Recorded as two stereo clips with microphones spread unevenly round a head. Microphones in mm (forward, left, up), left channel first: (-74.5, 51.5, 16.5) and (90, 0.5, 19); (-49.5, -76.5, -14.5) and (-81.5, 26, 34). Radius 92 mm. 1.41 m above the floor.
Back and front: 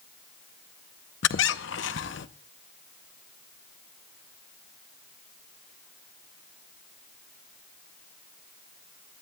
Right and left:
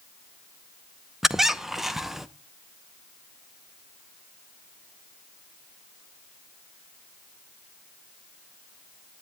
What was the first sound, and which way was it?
A squeak, straight behind.